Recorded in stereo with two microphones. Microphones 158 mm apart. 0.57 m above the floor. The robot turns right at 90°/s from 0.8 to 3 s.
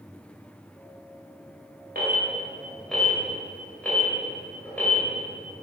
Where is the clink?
I don't hear a clink.